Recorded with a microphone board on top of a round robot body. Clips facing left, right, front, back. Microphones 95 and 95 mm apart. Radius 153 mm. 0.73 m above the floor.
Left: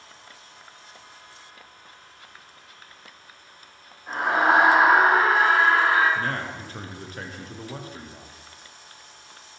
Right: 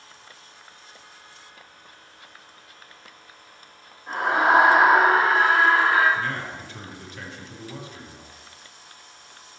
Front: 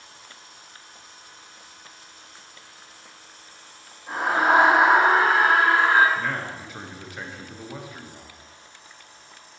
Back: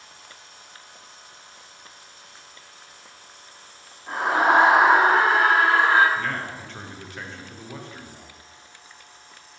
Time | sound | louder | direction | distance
4.1 | a scream | right 1 dB, back 1 dB | straight behind | 1.9 m
6.2 | a man speaking | left 1 dB, even | 80° left | 0.6 m